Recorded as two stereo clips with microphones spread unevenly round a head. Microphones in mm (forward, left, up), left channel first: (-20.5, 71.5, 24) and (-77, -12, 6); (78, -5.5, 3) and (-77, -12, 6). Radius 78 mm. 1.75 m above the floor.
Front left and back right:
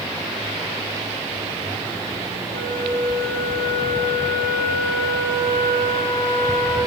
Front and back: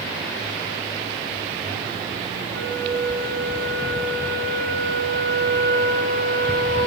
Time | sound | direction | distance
2.5 | a flute | 65° left | 2.5 m